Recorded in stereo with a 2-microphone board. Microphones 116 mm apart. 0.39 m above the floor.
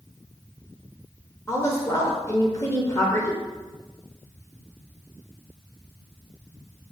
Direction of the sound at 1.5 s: 30° left (ahead or behind).